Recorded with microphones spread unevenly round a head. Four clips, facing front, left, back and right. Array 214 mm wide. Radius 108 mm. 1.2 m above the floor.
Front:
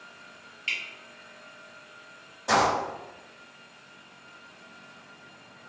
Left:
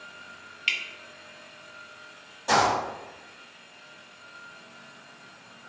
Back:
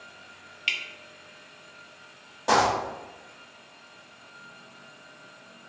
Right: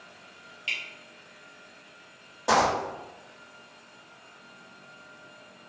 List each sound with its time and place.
0.7 s dripping: 130° left, 0.8 m
2.5 s a dropped coin: 135° right, 1.0 m